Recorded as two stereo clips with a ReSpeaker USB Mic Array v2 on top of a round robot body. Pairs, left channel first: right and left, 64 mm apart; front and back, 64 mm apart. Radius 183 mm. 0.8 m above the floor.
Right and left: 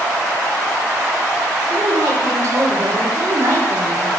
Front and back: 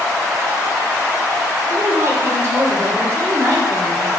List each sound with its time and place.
1.7 s a woman speaking: 135° left, 3 m